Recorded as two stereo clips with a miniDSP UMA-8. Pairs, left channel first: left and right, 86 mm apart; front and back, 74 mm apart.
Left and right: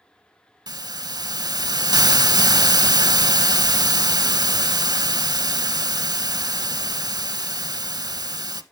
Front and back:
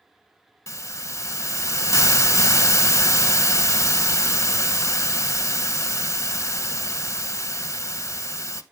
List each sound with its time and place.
0.7 s a hiss: 50° right, 0.5 m